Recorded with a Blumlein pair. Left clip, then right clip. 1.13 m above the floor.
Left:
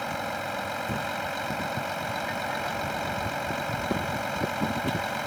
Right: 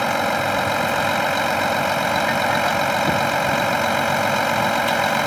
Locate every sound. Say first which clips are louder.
0.0 s a vehicle: right 11 dB; 60° right